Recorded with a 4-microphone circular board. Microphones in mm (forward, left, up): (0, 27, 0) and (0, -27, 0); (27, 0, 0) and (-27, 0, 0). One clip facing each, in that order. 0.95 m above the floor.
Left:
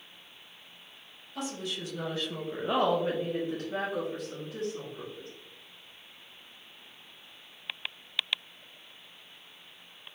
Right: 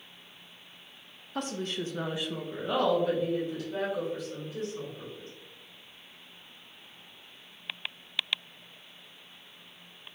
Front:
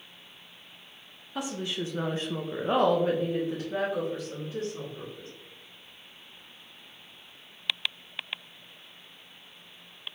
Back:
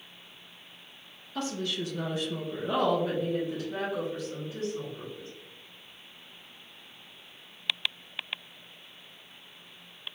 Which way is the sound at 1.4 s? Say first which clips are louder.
Right 3 dB, even; 75° right.